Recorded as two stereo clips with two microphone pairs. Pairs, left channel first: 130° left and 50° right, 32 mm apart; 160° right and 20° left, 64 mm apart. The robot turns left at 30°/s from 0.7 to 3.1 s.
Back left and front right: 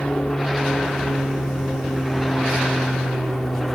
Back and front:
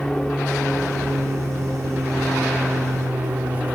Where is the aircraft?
130° left; by 3.8 s 60° left.